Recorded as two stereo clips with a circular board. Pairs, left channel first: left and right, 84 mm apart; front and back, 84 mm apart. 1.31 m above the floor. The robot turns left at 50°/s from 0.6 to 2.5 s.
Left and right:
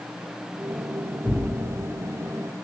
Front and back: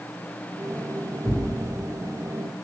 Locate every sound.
1.2 s tearing paper: 110° left, 1.7 m; by 1.4 s 100° left, 1.7 m